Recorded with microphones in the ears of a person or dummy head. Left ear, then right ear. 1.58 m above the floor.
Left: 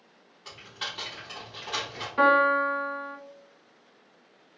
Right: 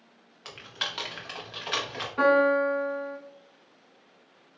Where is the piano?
20° left (ahead or behind), 0.7 m.